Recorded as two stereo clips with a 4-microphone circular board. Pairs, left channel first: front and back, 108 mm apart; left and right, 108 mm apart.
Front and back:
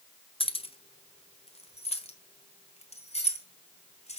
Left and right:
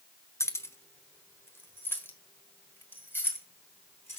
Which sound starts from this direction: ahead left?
Keys jangling, at 0.4 s.